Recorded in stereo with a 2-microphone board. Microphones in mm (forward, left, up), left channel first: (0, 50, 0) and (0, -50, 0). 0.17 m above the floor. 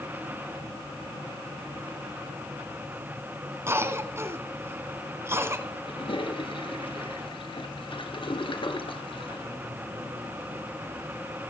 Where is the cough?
25° right (ahead or behind), 1.2 m.